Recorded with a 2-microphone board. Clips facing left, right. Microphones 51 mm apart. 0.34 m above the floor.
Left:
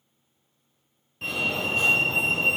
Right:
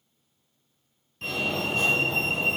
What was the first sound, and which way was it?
A fire alarm, 10° left (ahead or behind).